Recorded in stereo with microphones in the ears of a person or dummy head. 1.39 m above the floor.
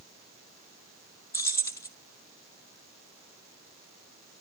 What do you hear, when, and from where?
1.3 s keys jangling: 20° left (ahead or behind), 0.8 m